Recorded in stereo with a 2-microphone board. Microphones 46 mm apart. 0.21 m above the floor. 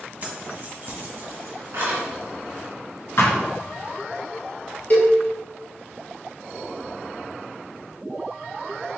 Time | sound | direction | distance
0.2 | keys jangling | 35° right (ahead or behind) | 1.2 m
3.2 | a thud | 70° left (ahead or behind) | 1.4 m
4.9 | a cowbell | 40° left (ahead or behind) | 1.6 m